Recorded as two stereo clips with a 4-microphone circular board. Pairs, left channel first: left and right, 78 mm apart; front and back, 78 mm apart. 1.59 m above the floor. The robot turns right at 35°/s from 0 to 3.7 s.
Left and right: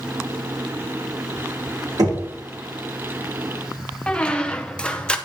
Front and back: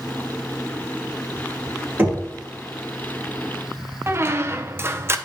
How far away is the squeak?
About 0.6 m.